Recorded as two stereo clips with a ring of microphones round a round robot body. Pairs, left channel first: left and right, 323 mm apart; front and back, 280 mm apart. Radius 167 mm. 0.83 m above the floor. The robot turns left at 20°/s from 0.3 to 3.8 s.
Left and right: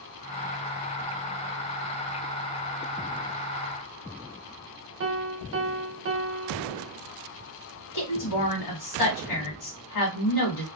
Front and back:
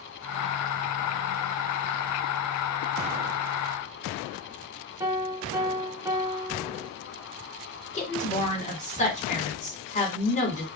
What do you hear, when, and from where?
5.0 s a piano: 105° right, 0.7 m
7.9 s a woman speaking: 65° left, 1.6 m